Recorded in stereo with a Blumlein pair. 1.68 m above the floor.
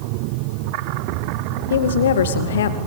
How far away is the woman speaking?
About 2.0 m.